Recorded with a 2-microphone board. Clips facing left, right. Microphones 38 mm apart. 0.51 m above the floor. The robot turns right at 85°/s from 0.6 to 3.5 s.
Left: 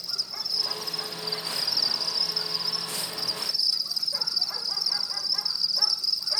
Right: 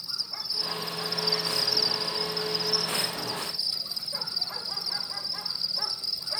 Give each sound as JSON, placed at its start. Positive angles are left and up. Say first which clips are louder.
{"t": 0.0, "sound": "an insect", "louder": "left 2 dB", "azimuth_deg": 80, "distance_m": 1.4}